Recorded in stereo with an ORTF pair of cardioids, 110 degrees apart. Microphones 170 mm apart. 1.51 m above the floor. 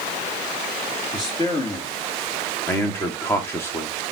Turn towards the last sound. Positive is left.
turn(degrees=15)